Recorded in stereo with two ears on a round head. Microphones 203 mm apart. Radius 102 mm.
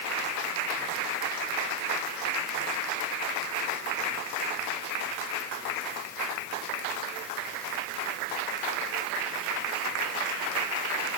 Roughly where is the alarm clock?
No alarm clock in this recording.